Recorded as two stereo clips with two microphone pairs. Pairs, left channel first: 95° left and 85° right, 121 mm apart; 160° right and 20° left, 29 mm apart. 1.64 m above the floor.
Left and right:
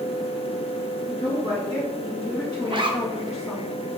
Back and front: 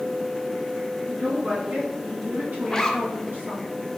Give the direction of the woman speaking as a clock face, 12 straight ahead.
10 o'clock.